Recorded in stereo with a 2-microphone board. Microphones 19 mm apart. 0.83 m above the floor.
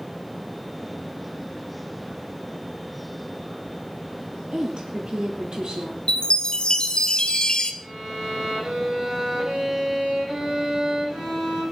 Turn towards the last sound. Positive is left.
turn(degrees=-50)  # may be behind; listen again after turning